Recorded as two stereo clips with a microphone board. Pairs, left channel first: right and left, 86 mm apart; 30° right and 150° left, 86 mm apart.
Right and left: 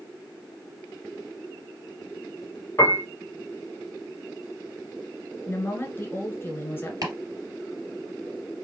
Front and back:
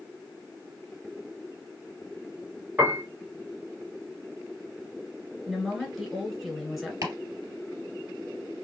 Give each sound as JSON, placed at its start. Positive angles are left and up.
{"t": 2.8, "sound": "a piano", "azimuth_deg": -145, "distance_m": 0.8}
{"t": 5.5, "sound": "a woman speaking", "azimuth_deg": -120, "distance_m": 1.4}
{"t": 7.0, "sound": "chopping", "azimuth_deg": 115, "distance_m": 3.0}